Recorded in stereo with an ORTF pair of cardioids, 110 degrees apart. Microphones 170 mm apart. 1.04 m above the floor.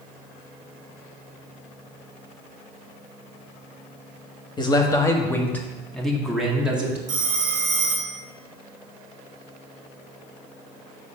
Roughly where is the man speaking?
Ahead left.